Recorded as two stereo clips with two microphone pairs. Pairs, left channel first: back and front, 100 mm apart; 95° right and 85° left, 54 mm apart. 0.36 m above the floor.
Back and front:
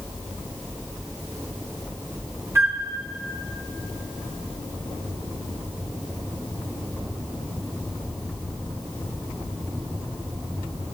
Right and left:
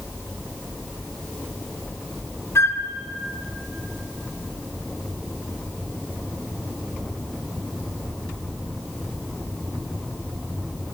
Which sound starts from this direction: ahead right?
A flute, at 2.5 s.